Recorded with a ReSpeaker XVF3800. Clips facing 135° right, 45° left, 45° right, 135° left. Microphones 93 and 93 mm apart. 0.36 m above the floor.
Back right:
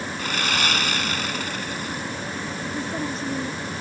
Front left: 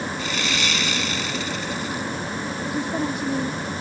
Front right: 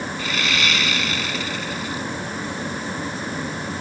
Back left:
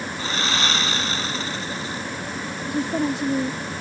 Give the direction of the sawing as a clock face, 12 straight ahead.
6 o'clock.